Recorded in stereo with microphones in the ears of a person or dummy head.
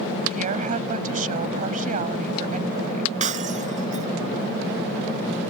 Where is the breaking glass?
45° right (ahead or behind).